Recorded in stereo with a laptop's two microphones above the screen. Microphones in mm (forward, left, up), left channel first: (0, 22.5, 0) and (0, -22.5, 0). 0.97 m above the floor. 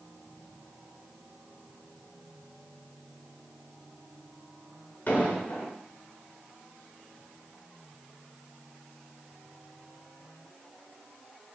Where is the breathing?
I don't hear breathing.